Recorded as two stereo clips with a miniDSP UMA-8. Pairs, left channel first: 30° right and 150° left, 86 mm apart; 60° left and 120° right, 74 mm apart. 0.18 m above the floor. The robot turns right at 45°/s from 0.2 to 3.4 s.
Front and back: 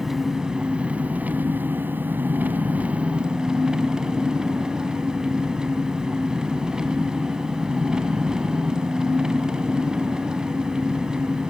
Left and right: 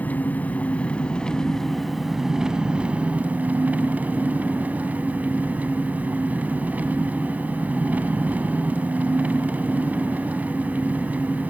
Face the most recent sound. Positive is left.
turn(degrees=-145)